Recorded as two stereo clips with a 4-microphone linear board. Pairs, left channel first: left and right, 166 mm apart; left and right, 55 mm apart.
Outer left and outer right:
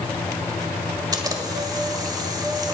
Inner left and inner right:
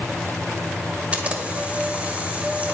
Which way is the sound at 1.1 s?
25° right (ahead or behind).